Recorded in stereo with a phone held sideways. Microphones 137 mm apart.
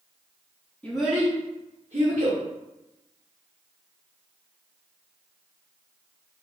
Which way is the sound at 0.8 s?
10° left (ahead or behind).